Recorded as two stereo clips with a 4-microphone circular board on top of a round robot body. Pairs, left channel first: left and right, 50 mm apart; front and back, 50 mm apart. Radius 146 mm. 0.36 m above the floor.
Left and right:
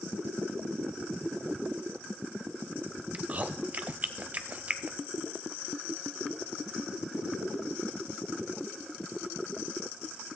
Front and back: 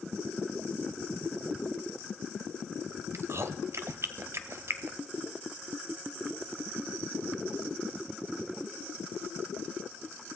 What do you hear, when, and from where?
3.1 s chewing: 150° right, 0.7 m